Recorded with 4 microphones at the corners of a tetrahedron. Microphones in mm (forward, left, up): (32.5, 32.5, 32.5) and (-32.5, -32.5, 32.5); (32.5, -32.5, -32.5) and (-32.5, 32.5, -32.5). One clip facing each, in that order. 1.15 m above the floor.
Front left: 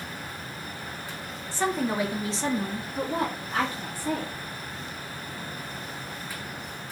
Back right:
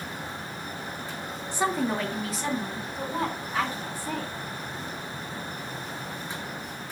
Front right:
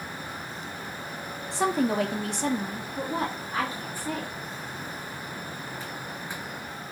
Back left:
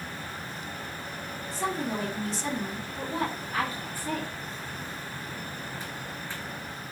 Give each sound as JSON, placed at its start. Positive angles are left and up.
{"t": 1.5, "sound": "a woman speaking", "azimuth_deg": -65, "distance_m": 0.6}